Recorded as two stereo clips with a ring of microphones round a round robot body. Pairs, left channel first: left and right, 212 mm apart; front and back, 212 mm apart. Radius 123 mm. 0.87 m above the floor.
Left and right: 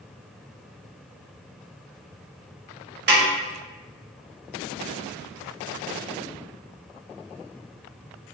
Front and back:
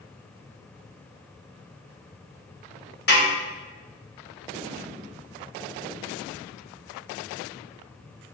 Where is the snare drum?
50° right, 1.7 m.